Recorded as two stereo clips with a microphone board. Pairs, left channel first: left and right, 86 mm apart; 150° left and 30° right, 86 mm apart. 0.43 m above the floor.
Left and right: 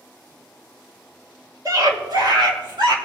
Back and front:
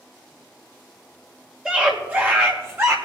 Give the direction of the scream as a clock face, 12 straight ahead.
4 o'clock.